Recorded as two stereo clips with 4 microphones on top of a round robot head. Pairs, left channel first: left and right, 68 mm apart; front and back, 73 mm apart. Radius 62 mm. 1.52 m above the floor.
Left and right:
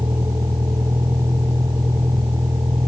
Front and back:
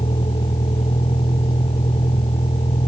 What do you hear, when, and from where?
0.0 s a vehicle: 30° right